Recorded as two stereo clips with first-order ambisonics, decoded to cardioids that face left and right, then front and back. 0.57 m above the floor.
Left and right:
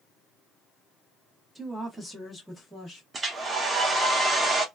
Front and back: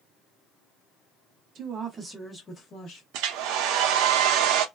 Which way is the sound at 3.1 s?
160° right.